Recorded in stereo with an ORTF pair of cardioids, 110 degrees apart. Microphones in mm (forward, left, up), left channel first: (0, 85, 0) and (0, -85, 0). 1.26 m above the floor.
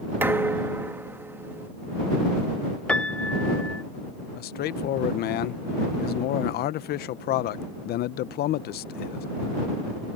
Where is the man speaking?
70° left.